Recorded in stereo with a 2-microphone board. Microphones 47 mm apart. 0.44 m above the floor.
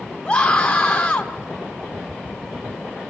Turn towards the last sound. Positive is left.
turn(degrees=25)  # may be behind; listen again after turning